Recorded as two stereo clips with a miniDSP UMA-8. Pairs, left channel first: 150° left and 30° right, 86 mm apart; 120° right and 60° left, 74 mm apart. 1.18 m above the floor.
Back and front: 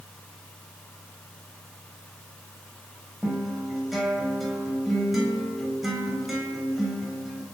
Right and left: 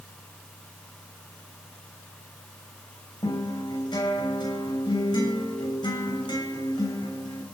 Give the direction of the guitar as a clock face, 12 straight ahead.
4 o'clock.